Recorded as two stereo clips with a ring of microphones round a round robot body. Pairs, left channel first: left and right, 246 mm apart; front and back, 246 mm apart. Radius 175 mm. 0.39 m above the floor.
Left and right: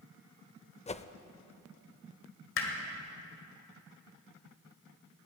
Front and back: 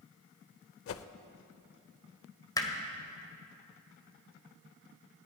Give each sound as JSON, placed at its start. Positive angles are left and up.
{"t": 0.9, "sound": "a whoosh", "azimuth_deg": 25, "distance_m": 0.6}
{"t": 2.6, "sound": "hammering", "azimuth_deg": 75, "distance_m": 1.8}